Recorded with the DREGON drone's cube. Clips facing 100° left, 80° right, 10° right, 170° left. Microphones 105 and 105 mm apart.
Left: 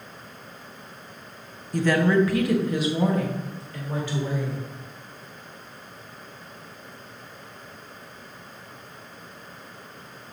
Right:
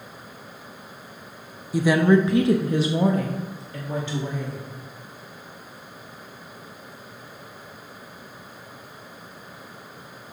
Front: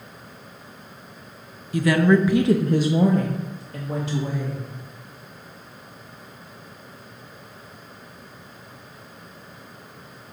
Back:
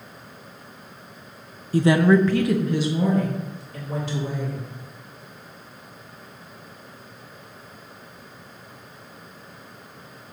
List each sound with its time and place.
1.7 s a woman speaking: 160° right, 0.6 m; by 4.6 s 15° right, 1.9 m